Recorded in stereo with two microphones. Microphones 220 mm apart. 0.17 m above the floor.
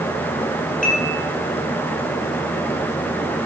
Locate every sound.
0.8 s dishes clattering: 35° left (ahead or behind), 3 m